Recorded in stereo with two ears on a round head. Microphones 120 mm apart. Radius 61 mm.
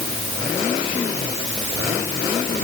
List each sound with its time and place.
Only background noise.